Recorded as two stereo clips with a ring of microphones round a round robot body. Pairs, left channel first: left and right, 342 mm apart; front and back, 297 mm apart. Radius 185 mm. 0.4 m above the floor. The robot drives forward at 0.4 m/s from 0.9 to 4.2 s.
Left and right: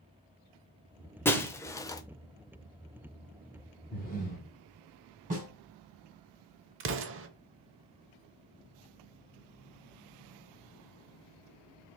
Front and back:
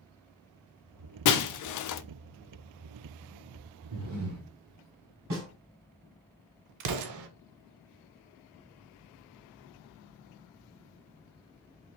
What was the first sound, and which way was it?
Breaking glass, 5° left.